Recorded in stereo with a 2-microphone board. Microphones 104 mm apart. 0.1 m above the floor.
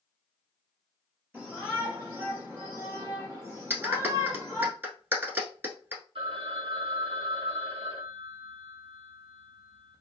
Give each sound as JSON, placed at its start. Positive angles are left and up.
{"t": 1.3, "sound": "a shout", "side_deg": -15, "distance_m": 2.0}
{"t": 3.7, "sound": "a clap", "side_deg": -20, "distance_m": 1.0}
{"t": 6.2, "sound": "a phone ringing", "side_deg": -60, "distance_m": 1.7}